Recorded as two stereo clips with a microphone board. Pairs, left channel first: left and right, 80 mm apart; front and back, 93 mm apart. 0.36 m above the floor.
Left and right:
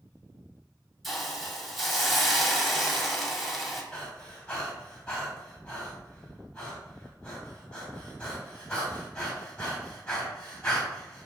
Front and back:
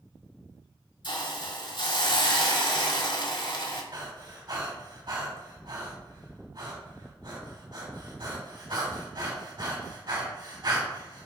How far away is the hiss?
About 1.5 m.